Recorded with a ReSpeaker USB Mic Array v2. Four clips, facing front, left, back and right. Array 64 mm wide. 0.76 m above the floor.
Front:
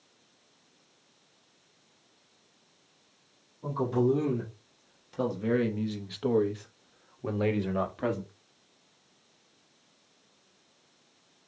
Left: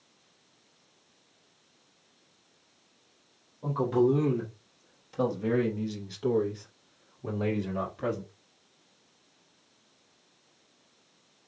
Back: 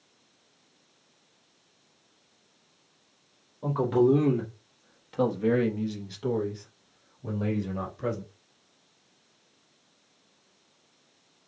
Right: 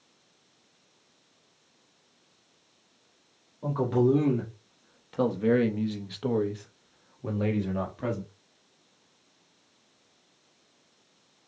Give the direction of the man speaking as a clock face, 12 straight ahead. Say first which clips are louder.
Even, back 4 dB; 5 o'clock.